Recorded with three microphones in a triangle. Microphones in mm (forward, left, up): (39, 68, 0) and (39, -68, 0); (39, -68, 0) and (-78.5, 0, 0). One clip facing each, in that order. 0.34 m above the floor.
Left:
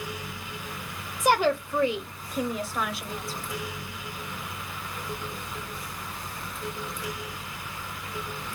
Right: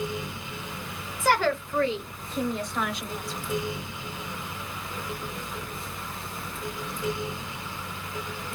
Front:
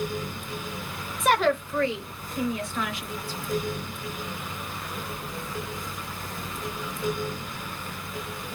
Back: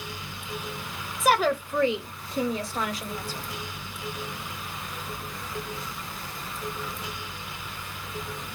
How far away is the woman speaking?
About 0.8 m.